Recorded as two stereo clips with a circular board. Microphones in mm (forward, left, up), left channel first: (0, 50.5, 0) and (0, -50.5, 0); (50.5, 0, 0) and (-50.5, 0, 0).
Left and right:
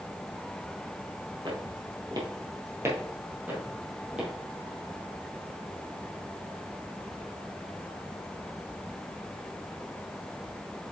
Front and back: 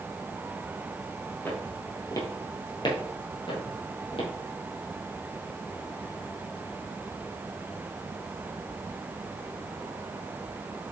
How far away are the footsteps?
About 2 m.